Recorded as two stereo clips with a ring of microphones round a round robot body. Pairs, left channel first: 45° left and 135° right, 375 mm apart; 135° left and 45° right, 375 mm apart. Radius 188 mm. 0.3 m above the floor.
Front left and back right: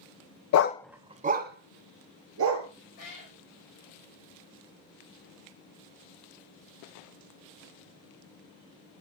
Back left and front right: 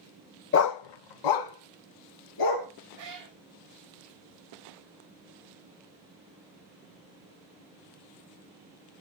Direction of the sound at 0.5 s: 80° left.